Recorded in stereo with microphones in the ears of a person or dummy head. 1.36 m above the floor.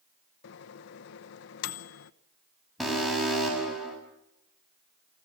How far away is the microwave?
About 0.8 m.